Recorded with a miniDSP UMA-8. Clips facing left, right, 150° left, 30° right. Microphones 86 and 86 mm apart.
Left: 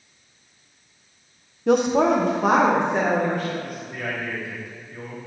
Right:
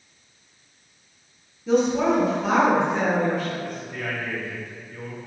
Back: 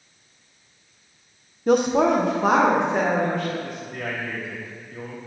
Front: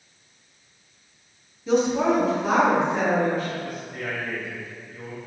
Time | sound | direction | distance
1.7 | a woman speaking | 115° left | 0.7 m
3.6 | a man speaking | 175° left | 2.5 m